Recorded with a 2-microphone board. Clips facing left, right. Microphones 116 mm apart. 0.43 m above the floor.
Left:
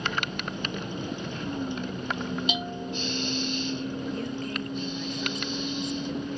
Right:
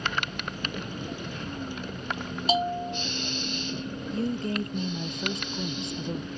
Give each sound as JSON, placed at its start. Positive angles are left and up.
{"t": 0.0, "sound": "a vehicle", "side_deg": 25}
{"t": 2.5, "sound": "a bell", "side_deg": -40}
{"t": 4.1, "sound": "a woman speaking", "side_deg": -30}